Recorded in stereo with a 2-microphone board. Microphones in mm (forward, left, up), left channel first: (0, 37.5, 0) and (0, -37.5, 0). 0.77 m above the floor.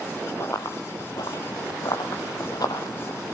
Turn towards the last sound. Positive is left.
turn(degrees=60)  # may be behind; listen again after turning